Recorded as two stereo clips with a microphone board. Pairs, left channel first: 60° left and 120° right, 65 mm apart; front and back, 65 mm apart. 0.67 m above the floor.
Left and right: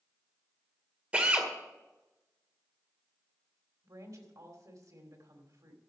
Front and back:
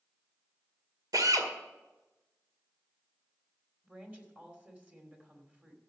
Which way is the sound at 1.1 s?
175° left.